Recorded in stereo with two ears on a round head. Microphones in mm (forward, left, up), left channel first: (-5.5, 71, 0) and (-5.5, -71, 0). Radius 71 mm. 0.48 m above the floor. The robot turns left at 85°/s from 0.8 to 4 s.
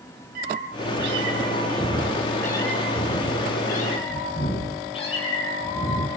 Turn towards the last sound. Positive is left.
turn(degrees=35)